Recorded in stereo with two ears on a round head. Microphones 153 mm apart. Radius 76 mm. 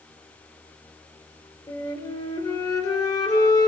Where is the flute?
20° left (ahead or behind), 4.5 m.